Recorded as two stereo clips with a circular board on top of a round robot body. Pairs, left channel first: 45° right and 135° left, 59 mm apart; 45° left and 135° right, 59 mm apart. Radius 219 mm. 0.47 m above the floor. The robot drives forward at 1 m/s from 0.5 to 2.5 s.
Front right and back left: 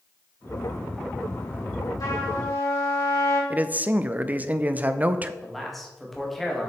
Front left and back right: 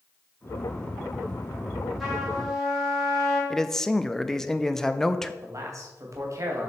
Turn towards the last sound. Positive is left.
turn(degrees=-130)